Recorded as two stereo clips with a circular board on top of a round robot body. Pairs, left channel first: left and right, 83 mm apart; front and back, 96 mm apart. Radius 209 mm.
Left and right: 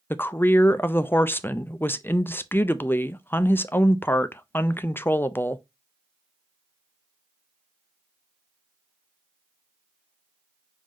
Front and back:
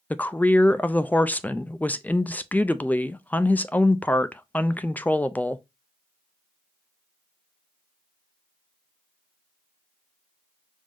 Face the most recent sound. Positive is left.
turn(degrees=55)